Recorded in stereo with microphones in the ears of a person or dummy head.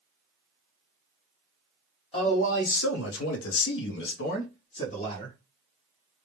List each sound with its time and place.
2.1 s a man speaking: 35° left (ahead or behind), 0.8 m